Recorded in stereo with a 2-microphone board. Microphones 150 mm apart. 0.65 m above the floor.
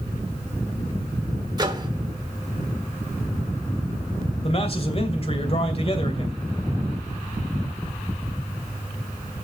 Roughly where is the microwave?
Right.